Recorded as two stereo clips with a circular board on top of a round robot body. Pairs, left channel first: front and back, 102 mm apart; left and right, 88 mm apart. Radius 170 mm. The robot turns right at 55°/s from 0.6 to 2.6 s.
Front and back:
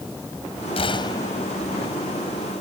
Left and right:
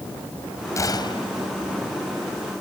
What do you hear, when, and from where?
0.8 s a gunshot: 35° left; by 1.5 s 70° left